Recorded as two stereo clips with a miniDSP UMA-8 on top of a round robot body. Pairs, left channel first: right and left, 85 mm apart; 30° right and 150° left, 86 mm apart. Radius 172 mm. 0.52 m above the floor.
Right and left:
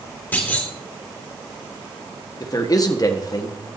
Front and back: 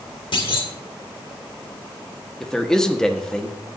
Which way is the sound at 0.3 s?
25° right.